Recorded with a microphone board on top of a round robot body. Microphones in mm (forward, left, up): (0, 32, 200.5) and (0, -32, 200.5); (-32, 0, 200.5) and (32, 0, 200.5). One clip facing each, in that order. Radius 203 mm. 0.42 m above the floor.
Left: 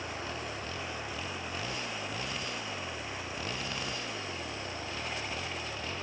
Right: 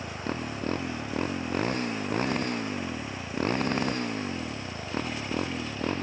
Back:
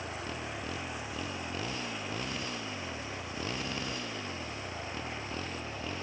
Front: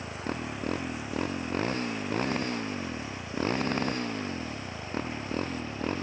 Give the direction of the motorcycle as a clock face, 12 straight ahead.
1 o'clock.